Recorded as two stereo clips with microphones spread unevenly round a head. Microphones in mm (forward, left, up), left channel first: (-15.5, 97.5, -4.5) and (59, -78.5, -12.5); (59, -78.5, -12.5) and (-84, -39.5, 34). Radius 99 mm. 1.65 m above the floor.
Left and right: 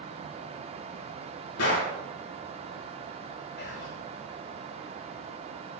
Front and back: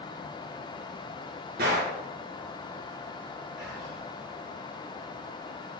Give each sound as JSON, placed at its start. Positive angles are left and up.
{"t": 1.6, "sound": "a gunshot", "azimuth_deg": 115, "distance_m": 4.5}
{"t": 3.6, "sound": "whispering", "azimuth_deg": 80, "distance_m": 1.7}